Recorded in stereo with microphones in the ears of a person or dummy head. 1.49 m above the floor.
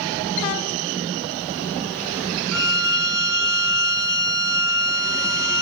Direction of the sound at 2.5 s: 5° left (ahead or behind).